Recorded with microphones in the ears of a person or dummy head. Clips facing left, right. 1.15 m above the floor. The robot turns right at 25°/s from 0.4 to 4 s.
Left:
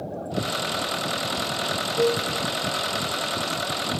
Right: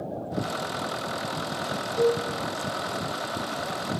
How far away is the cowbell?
About 1.2 m.